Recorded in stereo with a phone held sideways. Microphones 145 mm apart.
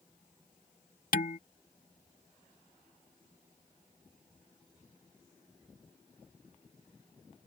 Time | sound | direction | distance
1.1 | dishes clattering | 75° left (ahead or behind) | ?